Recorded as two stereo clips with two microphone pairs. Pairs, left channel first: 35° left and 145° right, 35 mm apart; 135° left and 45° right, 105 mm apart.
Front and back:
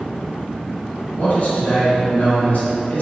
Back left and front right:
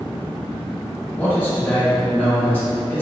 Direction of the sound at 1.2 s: 65° left.